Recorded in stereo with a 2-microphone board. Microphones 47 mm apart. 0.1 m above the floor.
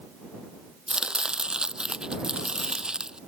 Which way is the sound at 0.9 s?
15° right (ahead or behind).